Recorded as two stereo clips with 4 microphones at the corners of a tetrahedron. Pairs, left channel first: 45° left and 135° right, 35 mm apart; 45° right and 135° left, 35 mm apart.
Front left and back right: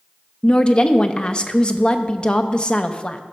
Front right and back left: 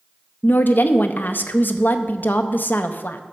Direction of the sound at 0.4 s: 15° right.